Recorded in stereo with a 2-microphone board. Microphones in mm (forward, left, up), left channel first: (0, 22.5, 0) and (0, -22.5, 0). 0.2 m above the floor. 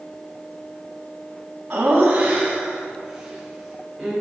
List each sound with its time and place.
1.7 s laughter: 35° right (ahead or behind), 1.7 m; by 4.1 s 5° right (ahead or behind), 3 m